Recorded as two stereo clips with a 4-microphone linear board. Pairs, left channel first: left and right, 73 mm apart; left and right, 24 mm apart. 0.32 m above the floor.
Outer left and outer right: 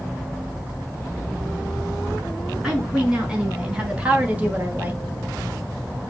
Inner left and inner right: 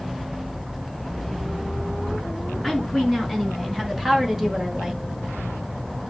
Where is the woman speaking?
10° right (ahead or behind), 4.5 m; by 5.0 s 25° right (ahead or behind), 1.6 m.